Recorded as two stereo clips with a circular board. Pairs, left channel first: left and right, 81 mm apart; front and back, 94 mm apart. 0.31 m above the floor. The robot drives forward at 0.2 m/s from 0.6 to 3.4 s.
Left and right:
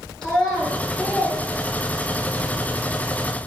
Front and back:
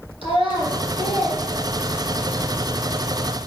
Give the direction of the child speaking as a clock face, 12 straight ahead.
6 o'clock.